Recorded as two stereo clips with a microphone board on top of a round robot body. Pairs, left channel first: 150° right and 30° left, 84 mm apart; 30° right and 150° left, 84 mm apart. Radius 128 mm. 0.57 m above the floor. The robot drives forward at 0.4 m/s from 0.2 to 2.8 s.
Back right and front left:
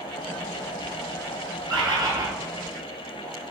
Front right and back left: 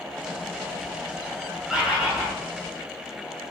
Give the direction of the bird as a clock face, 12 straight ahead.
10 o'clock.